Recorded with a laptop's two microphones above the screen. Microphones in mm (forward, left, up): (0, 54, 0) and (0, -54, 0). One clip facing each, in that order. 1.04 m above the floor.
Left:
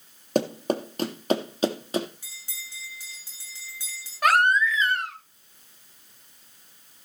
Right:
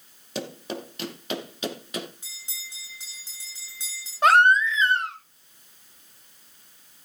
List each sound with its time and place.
0.3 s running footsteps: 45° left (ahead or behind), 2 m; by 2.1 s 30° left (ahead or behind), 2.5 m
2.2 s a bell: 20° right (ahead or behind), 5.5 m
4.2 s a baby crying: 25° right (ahead or behind), 3.5 m